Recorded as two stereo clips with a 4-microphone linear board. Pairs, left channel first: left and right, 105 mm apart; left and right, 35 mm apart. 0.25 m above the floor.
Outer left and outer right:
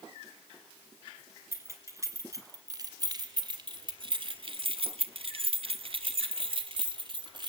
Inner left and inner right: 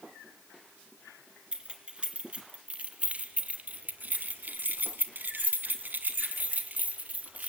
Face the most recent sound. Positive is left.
turn(degrees=-45)  # may be behind; listen again after turning